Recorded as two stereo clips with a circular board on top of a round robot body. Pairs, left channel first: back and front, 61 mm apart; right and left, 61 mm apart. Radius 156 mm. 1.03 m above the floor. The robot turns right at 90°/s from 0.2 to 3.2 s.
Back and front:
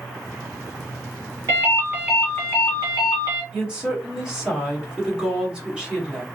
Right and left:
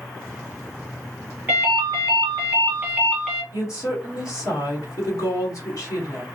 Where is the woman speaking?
75° right, 1.7 m.